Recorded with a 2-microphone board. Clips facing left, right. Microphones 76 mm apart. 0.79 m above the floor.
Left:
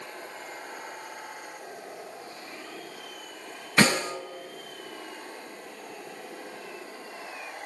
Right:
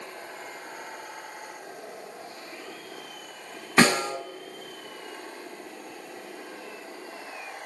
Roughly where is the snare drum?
Right.